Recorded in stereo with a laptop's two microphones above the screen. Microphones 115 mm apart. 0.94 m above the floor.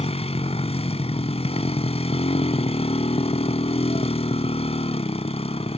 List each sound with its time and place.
0.0 s a motorcycle: 65° left (ahead or behind)